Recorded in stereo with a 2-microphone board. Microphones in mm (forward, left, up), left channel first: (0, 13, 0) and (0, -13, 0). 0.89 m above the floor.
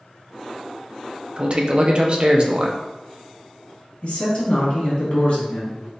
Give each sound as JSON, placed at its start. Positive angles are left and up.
{"t": 1.4, "sound": "a man speaking", "side_deg": -40, "distance_m": 0.5}
{"t": 4.0, "sound": "a man speaking", "side_deg": 55, "distance_m": 1.5}